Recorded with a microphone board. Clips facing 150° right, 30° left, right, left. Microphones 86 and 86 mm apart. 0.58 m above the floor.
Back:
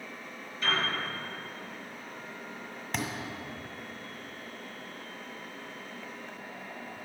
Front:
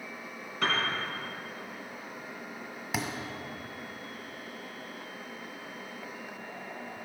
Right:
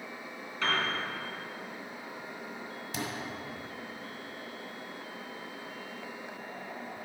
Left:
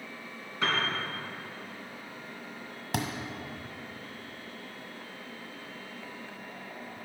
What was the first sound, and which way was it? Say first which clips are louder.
A piano: front 1 dB, left 1 dB; 20° left.